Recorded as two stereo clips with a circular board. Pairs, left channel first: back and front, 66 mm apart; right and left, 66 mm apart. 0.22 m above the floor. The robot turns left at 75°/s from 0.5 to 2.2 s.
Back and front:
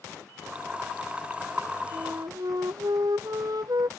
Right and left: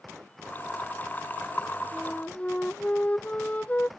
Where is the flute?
Straight ahead; by 3.9 s 20° right.